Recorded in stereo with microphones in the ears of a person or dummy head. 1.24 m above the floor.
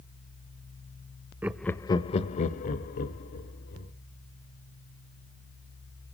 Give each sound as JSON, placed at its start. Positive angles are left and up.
{"t": 1.4, "sound": "laughter", "side_deg": -10, "distance_m": 0.6}